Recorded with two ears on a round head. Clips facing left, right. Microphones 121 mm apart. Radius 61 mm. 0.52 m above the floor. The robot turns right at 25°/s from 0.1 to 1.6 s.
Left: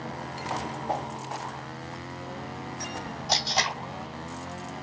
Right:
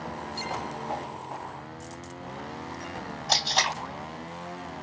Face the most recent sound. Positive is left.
turn(degrees=0)  # may be behind; listen again after turning